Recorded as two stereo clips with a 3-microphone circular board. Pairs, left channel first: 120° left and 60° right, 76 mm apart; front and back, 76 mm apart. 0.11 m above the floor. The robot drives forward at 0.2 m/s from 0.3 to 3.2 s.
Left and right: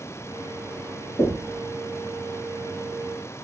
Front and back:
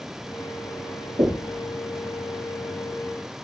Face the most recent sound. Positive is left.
turn(degrees=160)